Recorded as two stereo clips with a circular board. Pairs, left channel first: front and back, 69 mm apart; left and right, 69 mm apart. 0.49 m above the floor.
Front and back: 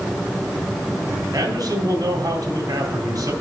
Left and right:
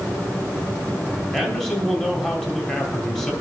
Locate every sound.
1.3 s a man speaking: 170° left, 2.5 m